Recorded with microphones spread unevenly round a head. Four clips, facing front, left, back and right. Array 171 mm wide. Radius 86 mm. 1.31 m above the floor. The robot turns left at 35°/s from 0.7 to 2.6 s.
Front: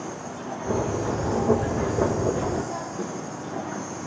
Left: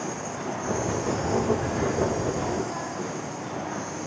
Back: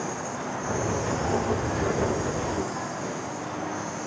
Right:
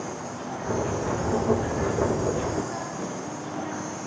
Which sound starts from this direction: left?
An insect, at 0.0 s.